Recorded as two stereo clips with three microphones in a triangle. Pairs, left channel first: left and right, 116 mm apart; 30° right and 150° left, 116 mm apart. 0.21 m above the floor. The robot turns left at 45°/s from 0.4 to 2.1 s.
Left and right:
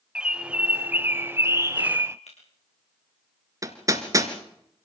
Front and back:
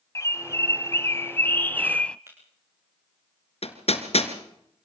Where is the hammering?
35° right, 2 m.